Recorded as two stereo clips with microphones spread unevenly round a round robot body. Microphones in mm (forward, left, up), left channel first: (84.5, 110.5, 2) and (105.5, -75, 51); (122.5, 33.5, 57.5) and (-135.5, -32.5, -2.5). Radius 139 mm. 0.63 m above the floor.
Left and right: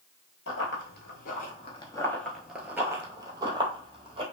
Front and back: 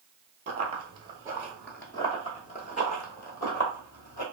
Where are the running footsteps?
125° left, 0.8 m; by 4.2 s 35° right, 1.4 m.